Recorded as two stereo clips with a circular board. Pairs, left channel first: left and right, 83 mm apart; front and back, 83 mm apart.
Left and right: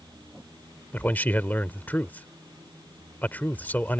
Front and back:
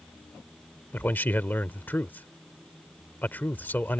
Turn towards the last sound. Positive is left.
turn(degrees=45)